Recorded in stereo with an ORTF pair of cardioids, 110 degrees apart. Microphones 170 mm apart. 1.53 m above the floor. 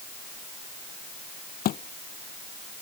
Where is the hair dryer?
No hair dryer in this recording.